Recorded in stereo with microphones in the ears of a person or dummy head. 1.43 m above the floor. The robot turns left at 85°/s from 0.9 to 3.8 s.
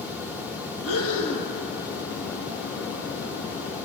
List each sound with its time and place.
0.8 s breathing: 80° left, 2.5 m; by 1.5 s 25° left, 2.5 m